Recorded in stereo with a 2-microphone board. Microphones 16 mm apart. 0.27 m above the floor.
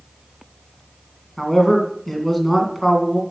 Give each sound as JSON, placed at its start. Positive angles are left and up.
{"t": 1.4, "sound": "a man speaking", "side_deg": 20, "distance_m": 2.5}